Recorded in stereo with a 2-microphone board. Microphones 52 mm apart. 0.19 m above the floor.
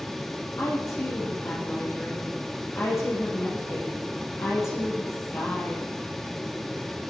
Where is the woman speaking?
60° left (ahead or behind), 6 m.